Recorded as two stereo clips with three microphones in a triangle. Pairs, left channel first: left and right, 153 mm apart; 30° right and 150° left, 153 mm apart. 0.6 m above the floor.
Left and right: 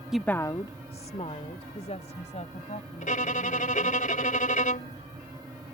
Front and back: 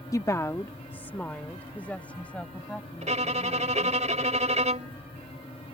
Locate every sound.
0.1 s a woman speaking: 10° right; by 4.0 s 50° left
3.0 s a violin: 115° left